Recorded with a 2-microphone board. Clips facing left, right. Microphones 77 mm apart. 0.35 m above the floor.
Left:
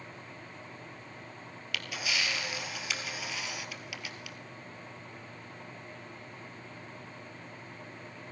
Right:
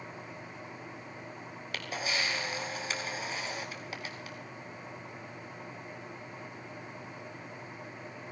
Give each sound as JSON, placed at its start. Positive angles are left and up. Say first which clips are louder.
{"t": 1.7, "sound": "a camera shutter", "louder": "right 1 dB", "side_deg": -40, "distance_m": 1.5}